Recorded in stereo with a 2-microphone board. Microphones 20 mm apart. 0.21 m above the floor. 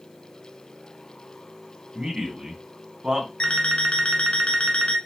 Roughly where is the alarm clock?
Left.